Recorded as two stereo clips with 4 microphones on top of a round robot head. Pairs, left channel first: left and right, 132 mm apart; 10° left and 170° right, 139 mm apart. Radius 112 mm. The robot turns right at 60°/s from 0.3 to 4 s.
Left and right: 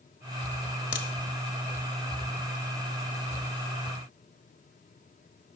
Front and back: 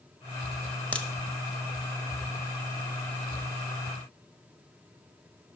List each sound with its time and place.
0.9 s a crack: 90° left, 0.8 m; by 1.1 s 95° left, 0.8 m